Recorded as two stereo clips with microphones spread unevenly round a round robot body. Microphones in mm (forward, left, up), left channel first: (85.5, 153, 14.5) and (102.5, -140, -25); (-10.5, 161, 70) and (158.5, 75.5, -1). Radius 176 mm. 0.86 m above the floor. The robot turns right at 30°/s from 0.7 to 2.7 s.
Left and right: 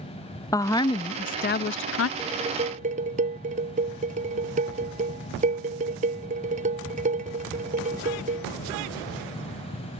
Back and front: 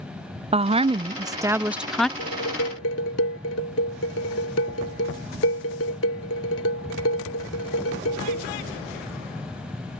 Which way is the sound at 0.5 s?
10° left.